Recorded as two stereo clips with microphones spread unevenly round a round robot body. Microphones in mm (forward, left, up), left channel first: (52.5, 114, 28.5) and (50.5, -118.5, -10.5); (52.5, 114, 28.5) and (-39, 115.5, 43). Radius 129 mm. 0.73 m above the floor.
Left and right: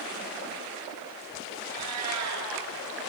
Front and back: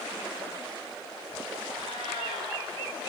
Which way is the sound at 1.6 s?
120° right.